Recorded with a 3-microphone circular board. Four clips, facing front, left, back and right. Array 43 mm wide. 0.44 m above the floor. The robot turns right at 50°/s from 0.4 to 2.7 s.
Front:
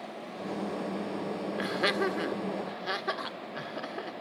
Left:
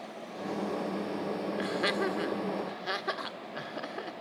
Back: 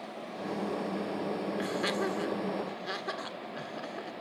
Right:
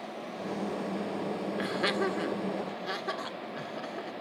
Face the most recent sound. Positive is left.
turn(degrees=45)